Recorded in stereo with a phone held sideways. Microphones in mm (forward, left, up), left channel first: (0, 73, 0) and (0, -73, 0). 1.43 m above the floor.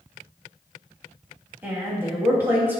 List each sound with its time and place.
1.6 s a woman speaking: 15° right (ahead or behind), 2.5 m